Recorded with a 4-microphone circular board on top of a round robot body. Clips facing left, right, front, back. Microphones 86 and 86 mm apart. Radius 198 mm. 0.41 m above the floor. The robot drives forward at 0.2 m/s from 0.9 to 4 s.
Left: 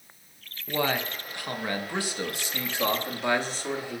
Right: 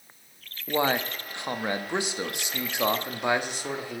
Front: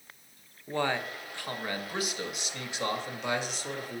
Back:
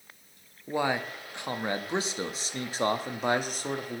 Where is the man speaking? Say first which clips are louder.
Right 2 dB, back 2 dB; 115° right, 0.8 m; by 4.0 s 160° right, 1.1 m.